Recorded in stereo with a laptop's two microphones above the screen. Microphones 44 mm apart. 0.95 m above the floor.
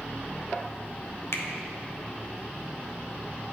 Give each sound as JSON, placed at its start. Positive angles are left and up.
{"t": 1.3, "sound": "a finger snap", "side_deg": 75, "distance_m": 0.7}